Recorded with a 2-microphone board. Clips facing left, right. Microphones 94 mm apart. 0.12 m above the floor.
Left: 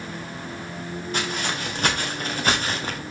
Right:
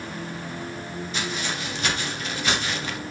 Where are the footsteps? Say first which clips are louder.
Left 3 dB; 50° left (ahead or behind), 3.5 m; by 3.0 s 40° left (ahead or behind), 2 m.